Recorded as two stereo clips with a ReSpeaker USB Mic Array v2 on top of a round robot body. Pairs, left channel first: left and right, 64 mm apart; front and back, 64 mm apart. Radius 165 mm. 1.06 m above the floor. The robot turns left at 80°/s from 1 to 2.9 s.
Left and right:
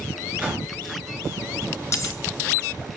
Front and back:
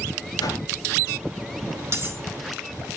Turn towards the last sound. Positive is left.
turn(degrees=60)